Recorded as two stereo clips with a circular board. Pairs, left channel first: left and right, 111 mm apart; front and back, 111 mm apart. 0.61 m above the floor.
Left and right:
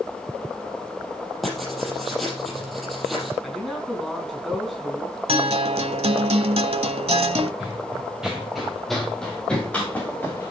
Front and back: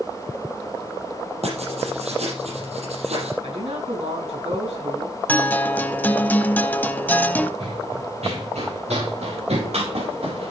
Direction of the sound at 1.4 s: Straight behind.